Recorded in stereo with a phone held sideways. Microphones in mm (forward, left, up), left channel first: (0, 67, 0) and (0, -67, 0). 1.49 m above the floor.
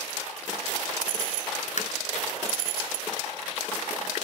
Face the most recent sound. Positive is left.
turn(degrees=60)  # may be behind; listen again after turning